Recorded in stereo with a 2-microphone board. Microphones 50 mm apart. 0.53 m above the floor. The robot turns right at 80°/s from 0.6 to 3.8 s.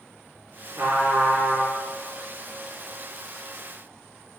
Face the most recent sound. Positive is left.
turn(degrees=155)